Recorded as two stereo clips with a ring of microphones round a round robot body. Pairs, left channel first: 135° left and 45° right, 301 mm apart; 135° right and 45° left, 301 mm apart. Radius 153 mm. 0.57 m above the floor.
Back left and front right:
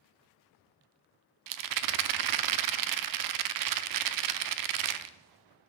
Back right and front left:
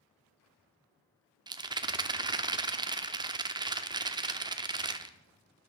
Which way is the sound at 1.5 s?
30° right.